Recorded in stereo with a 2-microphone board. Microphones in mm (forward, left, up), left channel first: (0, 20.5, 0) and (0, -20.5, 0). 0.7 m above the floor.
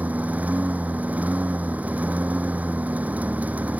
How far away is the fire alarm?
I don't hear a fire alarm.